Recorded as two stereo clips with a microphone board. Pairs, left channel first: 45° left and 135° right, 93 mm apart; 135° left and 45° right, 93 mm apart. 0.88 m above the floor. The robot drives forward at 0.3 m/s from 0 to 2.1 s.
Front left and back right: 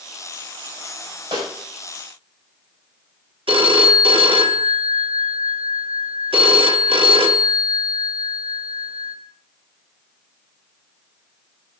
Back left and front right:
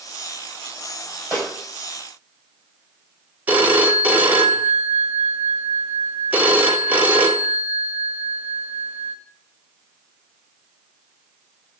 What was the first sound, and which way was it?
A snare drum, 125° right.